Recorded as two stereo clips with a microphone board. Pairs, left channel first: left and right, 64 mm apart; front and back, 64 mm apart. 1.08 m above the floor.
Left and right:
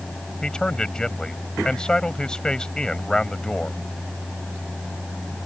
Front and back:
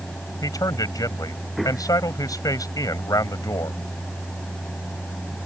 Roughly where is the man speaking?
Ahead.